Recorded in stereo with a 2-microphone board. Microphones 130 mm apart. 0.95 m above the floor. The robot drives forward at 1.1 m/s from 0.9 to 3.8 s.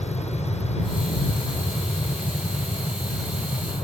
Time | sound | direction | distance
0.0 | an aircraft | 60° left (ahead or behind) | ?